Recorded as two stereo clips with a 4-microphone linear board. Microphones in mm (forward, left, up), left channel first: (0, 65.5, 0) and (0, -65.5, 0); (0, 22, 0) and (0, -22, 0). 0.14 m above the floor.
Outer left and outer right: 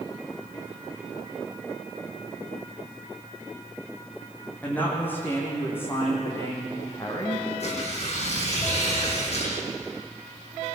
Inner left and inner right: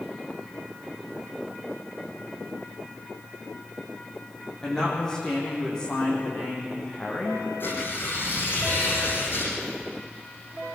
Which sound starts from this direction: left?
Tearing paper, at 7.6 s.